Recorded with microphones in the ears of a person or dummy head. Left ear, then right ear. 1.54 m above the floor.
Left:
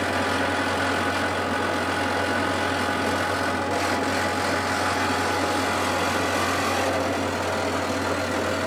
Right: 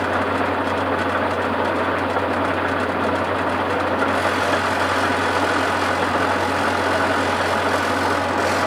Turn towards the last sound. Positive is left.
turn(degrees=-60)  # may be behind; listen again after turning